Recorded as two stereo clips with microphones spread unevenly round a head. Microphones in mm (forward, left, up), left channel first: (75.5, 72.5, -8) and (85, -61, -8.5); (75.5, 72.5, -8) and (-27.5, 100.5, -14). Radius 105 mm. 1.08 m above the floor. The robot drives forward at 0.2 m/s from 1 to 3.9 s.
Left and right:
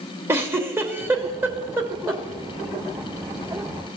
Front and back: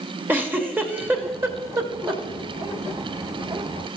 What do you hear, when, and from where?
0.3 s a giggle: 135° right, 0.8 m; by 2.2 s 155° right, 0.9 m